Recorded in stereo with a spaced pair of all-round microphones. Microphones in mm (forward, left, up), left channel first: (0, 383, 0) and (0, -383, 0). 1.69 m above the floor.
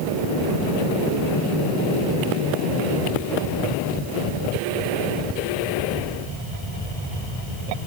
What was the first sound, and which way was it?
Only background noise.